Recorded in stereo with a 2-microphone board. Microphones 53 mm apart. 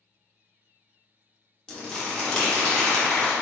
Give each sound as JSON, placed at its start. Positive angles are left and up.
{"t": 1.7, "sound": "crumpling", "side_deg": 15, "distance_m": 1.0}